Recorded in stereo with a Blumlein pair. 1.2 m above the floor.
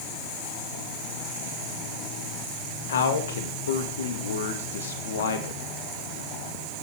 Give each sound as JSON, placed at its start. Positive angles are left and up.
{"t": 2.9, "sound": "a man speaking", "azimuth_deg": 60, "distance_m": 2.0}